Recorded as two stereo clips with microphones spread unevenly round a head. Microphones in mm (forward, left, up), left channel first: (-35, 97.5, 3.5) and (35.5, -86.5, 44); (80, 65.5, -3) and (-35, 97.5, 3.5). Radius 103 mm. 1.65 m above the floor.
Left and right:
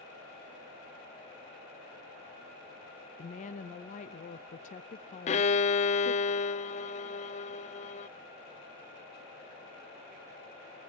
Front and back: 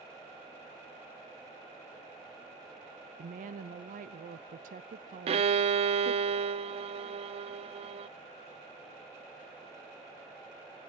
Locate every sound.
3.2 s a woman speaking: 165° left, 0.7 m
5.3 s a violin: 170° left, 0.6 m